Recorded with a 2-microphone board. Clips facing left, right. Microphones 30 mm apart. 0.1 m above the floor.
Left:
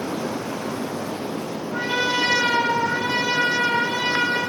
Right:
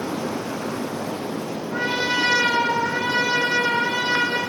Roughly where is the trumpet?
Right.